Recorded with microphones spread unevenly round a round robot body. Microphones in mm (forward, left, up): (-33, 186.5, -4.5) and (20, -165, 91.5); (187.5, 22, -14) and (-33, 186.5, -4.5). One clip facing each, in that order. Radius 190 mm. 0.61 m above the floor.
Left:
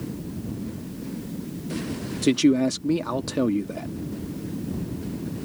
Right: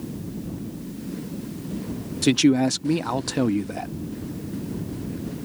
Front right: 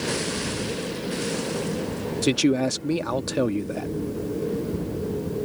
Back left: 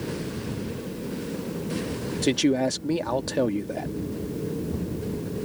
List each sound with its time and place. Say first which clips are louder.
2.2 s a man speaking: right 1 dB, front right 1 dB; 25° left